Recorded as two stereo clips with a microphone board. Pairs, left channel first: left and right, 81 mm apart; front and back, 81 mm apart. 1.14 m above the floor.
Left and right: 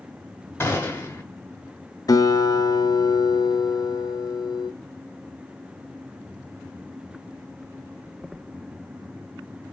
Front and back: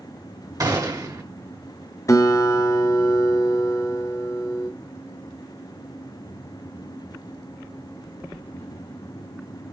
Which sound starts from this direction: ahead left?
A guitar, at 2.1 s.